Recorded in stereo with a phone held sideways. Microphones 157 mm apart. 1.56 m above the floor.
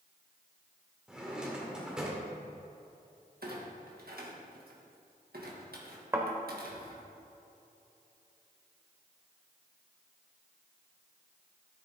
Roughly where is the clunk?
Right.